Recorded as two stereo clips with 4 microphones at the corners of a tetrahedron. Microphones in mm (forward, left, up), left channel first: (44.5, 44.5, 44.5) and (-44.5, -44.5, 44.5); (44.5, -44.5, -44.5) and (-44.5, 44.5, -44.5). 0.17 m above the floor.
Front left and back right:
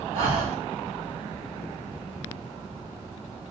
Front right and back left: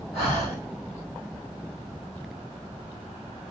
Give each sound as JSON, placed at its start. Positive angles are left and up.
{"t": 0.1, "sound": "breathing", "azimuth_deg": 180, "distance_m": 3.0}